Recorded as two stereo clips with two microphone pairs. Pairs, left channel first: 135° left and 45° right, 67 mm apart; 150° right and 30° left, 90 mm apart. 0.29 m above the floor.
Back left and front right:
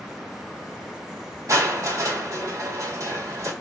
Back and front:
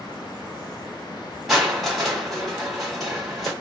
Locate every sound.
1.5 s crushing: 55° right, 1.3 m